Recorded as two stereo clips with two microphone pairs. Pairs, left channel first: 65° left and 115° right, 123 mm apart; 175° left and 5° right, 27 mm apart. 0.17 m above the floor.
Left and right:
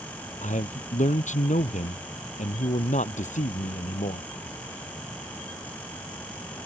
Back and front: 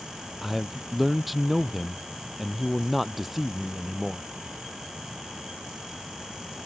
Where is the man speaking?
75° left.